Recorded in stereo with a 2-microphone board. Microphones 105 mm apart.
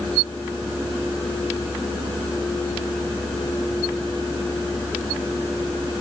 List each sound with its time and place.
Only background noise.